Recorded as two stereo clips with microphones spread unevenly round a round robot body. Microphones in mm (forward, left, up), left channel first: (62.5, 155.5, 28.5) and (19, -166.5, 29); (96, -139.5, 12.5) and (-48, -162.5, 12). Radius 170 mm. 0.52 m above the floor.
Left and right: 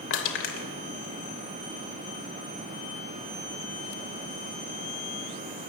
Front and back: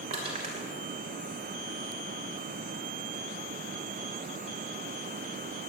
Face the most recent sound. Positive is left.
turn(degrees=130)